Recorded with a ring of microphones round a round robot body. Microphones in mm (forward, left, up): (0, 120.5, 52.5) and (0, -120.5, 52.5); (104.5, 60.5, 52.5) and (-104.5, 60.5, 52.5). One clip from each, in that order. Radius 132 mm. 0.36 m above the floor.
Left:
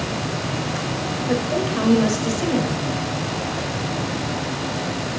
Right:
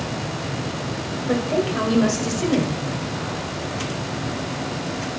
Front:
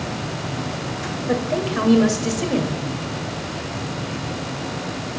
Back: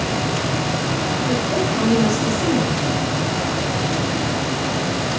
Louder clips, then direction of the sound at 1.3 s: Right 1 dB, front 2 dB; straight ahead.